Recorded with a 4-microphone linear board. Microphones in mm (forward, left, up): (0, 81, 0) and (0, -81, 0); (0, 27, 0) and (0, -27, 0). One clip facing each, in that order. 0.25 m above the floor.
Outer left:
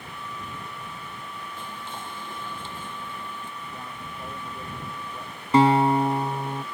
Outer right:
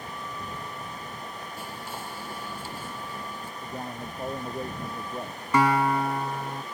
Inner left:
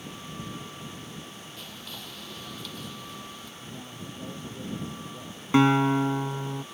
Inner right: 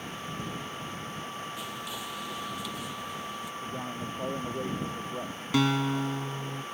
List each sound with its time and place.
1.6 s whispering: 10° right (ahead or behind)
3.6 s a man speaking: 40° right (ahead or behind)
5.5 s a guitar: 30° left (ahead or behind)